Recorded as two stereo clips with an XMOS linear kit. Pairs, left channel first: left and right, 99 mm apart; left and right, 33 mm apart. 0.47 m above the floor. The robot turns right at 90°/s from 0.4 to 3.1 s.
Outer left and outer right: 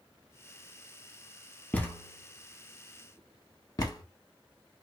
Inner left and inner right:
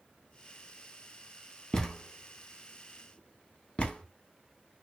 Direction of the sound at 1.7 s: 15° left (ahead or behind).